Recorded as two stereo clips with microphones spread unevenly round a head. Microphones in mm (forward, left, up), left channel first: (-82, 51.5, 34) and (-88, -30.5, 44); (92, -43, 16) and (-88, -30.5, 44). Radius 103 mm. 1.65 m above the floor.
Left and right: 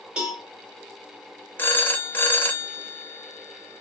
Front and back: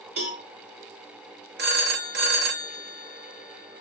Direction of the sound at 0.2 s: 170° right.